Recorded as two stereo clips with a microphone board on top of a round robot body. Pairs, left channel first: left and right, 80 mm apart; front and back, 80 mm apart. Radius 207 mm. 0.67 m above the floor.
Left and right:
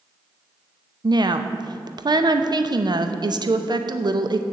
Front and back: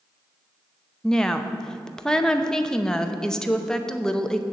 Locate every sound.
1.0 s a woman speaking: 80° right, 0.9 m